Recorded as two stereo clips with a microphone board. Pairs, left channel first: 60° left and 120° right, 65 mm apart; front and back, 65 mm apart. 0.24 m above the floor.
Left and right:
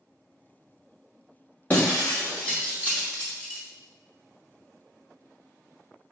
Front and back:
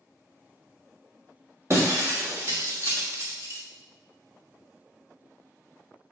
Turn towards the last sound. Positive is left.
turn(degrees=130)